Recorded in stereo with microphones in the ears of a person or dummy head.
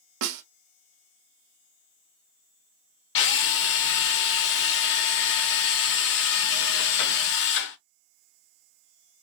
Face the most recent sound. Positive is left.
turn(degrees=65)  # may be behind; listen again after turning